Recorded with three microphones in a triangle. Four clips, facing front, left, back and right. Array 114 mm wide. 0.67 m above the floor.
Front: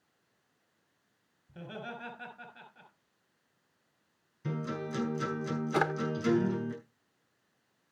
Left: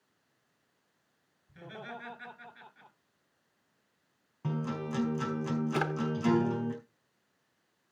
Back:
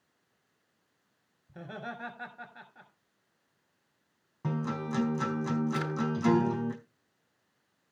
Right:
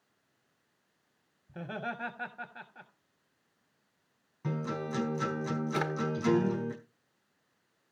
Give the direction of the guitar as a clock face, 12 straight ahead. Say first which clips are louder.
Even, back 3 dB; 6 o'clock.